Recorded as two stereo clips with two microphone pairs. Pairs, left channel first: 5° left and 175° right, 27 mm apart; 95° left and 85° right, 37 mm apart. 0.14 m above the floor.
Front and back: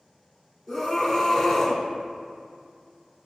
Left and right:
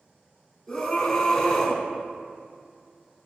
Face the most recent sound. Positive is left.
turn(degrees=45)